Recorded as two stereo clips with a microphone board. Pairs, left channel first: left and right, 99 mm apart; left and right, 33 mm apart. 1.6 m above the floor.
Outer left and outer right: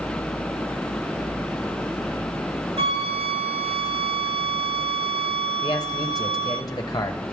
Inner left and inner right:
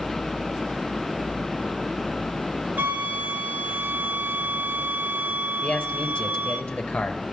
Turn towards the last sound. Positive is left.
turn(degrees=40)  # may be behind; listen again after turning